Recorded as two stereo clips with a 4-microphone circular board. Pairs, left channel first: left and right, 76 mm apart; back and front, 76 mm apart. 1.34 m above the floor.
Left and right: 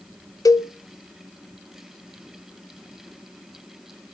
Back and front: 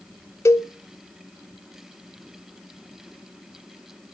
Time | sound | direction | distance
0.5 | a cowbell | 130° left | 0.6 m